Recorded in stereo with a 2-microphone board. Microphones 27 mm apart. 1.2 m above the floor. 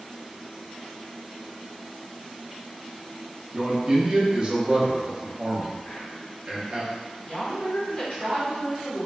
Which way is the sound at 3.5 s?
30° right (ahead or behind).